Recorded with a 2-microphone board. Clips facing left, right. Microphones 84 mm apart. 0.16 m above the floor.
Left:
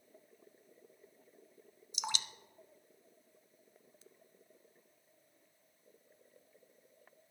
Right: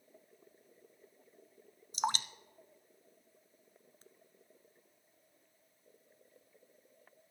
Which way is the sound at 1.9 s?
45° right (ahead or behind).